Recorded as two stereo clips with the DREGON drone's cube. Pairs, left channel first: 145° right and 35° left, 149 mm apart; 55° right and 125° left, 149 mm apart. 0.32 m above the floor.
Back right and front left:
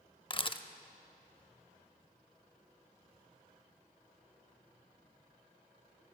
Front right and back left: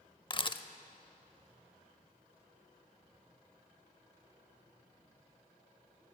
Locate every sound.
0.3 s a camera shutter: 100° right, 0.6 m